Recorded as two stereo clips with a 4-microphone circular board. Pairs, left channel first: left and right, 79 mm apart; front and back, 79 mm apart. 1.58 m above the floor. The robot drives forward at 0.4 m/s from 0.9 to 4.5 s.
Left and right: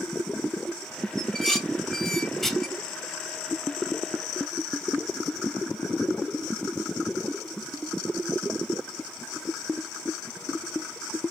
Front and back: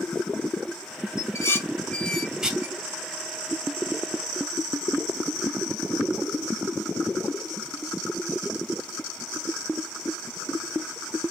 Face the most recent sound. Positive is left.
turn(degrees=180)